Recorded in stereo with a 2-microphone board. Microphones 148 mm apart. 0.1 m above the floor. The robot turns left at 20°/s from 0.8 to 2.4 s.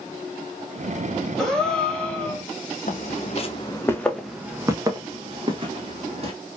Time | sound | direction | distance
1.4 | a gasp | 5° left (ahead or behind) | 1.1 m
2.9 | footsteps | 65° left (ahead or behind) | 0.7 m